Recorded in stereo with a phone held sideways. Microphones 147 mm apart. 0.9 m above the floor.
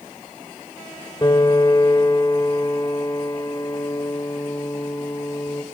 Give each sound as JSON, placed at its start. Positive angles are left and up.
{"t": 1.2, "sound": "a piano", "side_deg": 30, "distance_m": 1.5}